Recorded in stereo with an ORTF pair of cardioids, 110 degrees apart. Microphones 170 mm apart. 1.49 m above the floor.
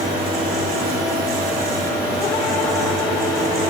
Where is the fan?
60° right, 5 m.